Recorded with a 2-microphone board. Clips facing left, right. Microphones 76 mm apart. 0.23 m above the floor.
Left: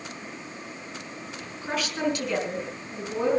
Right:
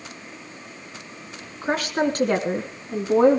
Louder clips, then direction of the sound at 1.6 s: Right 5 dB; 40° right (ahead or behind).